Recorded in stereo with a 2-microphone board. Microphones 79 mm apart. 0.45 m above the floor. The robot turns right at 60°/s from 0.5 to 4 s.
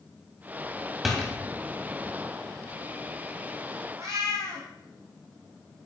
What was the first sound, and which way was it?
A door slam, 5° right (ahead or behind).